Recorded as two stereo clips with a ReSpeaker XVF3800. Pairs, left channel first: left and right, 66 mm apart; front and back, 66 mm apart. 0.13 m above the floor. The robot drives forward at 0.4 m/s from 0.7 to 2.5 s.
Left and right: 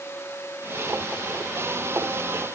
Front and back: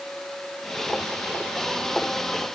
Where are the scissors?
No scissors in this recording.